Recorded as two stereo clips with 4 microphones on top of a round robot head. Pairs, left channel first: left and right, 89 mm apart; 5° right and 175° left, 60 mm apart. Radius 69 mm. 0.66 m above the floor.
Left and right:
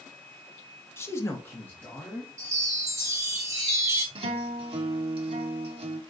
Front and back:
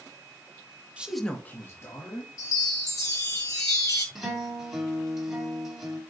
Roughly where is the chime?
Ahead right.